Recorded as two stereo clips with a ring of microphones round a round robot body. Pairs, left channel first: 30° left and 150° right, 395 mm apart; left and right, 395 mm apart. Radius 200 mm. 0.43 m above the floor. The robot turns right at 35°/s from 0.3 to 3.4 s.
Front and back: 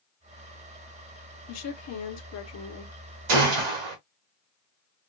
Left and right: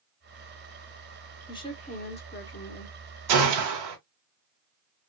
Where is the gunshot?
125° right, 1.4 m; by 4.0 s 120° right, 1.4 m.